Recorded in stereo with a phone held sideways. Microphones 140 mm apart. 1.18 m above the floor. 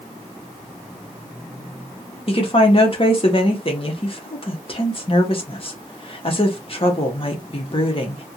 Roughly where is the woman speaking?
Left.